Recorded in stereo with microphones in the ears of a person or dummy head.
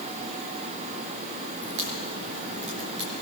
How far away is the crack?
About 4 m.